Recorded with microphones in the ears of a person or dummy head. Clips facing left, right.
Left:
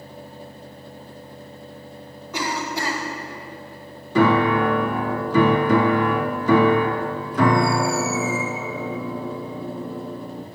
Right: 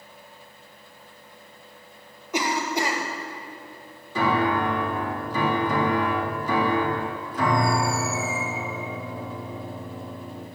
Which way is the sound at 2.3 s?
20° right (ahead or behind).